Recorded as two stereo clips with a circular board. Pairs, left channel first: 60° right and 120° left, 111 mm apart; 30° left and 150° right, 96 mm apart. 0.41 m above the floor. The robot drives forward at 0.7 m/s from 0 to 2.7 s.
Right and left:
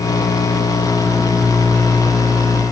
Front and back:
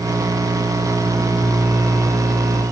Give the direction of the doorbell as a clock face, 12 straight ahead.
I don't hear a doorbell.